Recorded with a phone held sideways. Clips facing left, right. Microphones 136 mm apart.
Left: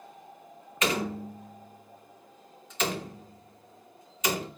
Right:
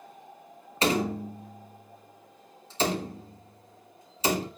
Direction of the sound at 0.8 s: 35° right (ahead or behind).